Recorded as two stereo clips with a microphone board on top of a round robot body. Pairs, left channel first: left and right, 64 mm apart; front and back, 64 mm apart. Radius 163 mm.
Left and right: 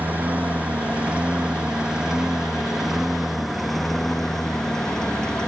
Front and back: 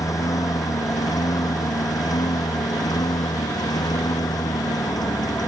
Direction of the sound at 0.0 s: 25° right.